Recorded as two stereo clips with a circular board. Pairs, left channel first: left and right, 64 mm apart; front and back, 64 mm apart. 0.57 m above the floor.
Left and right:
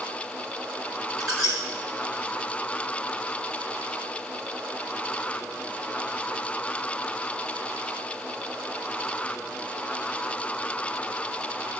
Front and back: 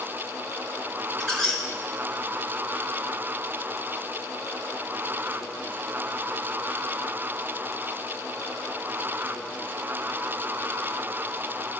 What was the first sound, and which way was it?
A squeak, 80° right.